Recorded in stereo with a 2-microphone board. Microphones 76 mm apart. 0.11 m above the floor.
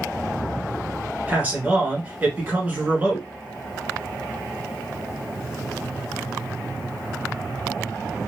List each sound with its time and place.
1.3 s a man speaking: 20° right (ahead or behind), 1.1 m